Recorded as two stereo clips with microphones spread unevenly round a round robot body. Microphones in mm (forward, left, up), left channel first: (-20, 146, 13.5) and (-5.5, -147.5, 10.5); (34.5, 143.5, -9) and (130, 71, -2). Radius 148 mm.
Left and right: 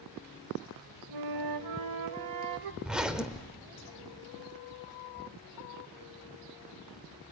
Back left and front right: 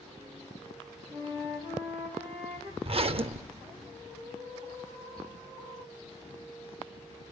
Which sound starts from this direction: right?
A flute, at 1.1 s.